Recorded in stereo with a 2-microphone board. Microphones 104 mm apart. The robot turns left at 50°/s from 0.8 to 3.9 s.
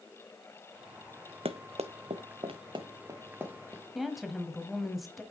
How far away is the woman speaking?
About 1.4 m.